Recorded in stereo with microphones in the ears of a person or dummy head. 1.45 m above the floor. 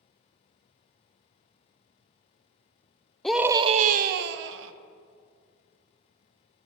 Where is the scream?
5° left (ahead or behind), 0.5 m; by 4.7 s 70° right (ahead or behind), 1.1 m.